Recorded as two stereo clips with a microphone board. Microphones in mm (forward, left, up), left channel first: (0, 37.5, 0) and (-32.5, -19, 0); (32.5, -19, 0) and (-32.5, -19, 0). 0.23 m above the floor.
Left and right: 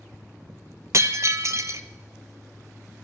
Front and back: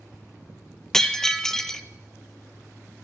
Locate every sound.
0.9 s breaking glass: 85° right, 0.6 m